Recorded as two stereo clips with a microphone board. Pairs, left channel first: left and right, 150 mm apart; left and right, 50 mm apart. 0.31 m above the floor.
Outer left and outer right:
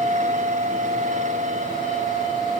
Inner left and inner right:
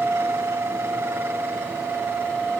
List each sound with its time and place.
Only background noise.